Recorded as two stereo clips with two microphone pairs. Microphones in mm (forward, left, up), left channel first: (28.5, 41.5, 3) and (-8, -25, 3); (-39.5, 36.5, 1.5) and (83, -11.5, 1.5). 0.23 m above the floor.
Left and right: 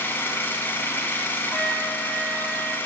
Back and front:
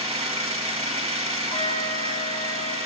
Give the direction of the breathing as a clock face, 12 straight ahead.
I don't hear breathing.